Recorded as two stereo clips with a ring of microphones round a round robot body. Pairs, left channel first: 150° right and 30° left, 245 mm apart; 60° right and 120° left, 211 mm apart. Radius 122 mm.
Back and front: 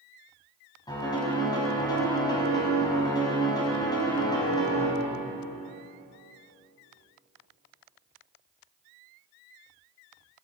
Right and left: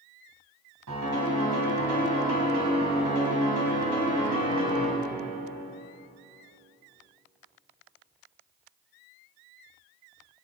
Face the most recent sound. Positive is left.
turn(degrees=135)